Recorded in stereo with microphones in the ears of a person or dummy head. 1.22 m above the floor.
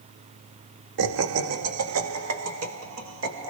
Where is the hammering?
No hammering in this recording.